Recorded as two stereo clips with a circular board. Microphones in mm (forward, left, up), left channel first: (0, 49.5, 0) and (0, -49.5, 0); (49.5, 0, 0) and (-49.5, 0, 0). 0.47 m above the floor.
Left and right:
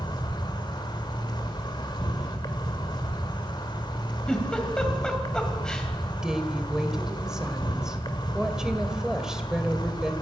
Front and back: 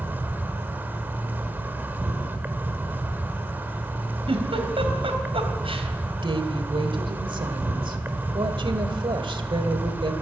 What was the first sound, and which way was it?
An insect, 115° left.